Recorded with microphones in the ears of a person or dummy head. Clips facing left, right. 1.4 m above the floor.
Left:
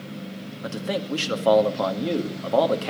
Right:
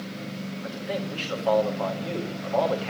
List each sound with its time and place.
0.6 s a man speaking: 55° left (ahead or behind), 1.9 m